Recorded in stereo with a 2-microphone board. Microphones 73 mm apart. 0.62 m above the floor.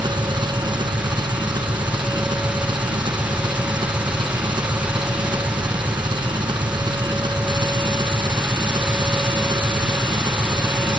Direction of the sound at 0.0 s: 80° right.